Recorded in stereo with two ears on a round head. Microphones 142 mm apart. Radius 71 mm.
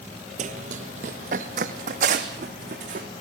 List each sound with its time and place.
0.4 s running footsteps: 45° right (ahead or behind), 1.1 m; by 3.1 s 50° right (ahead or behind), 4 m